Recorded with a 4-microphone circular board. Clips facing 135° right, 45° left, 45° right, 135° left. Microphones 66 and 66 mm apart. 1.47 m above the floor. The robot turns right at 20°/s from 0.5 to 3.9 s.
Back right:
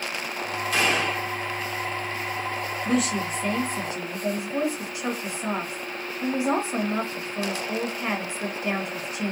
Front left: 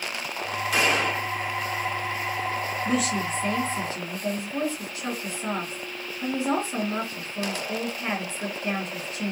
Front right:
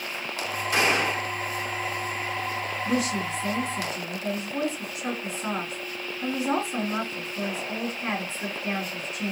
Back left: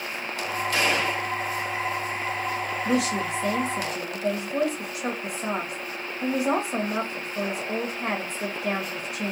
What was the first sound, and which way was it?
A gunshot, 35° right.